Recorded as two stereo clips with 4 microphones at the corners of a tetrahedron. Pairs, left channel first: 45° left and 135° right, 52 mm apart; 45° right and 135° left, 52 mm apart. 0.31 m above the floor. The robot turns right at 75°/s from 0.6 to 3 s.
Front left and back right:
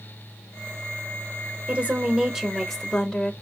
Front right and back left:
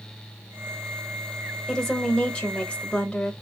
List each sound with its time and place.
1.7 s a woman speaking: 115° right, 1.2 m; by 3.3 s 20° right, 1.2 m